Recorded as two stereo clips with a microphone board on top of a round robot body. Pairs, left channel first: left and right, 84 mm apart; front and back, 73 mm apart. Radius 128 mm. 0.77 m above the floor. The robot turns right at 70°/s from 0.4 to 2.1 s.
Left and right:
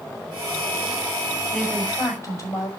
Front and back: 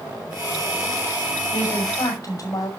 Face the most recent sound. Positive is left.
turn(degrees=40)